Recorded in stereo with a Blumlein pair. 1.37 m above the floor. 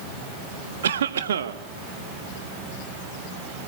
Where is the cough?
65° right, 2.0 m.